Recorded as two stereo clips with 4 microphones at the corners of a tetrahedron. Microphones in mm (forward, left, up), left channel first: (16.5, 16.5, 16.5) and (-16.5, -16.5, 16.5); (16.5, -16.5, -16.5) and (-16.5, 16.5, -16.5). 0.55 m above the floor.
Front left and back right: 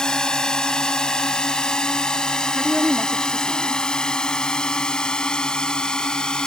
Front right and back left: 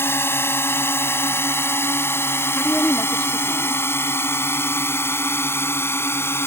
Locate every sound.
0.0 s a drone: 30° right; by 6.5 s 25° right
2.5 s a woman speaking: 50° right